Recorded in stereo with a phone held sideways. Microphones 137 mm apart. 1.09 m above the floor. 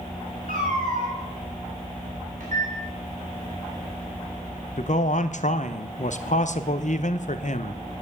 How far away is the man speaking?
About 0.6 m.